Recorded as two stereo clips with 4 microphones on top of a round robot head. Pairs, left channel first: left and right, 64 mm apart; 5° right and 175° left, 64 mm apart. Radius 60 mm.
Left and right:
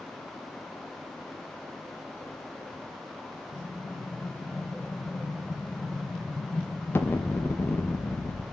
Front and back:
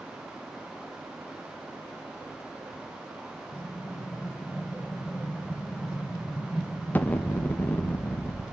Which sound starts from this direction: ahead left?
An explosion, at 3.5 s.